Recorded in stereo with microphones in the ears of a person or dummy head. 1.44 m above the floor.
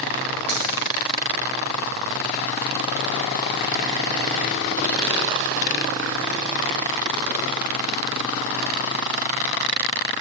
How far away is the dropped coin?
About 3 m.